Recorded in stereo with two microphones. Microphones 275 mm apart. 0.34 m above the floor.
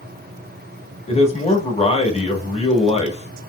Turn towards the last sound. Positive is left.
turn(degrees=25)  # may be behind; listen again after turning